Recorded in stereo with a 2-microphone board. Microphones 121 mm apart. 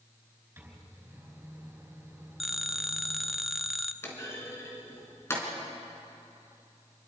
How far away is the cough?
I don't hear a cough.